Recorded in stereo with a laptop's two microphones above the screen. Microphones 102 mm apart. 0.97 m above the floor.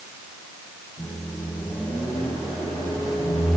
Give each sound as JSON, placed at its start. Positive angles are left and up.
{"t": 1.0, "sound": "a microwave", "side_deg": 35, "distance_m": 4.0}